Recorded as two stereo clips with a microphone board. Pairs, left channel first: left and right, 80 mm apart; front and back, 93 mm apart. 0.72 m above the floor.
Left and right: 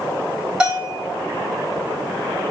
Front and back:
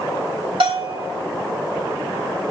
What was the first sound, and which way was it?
A bell, 170° right.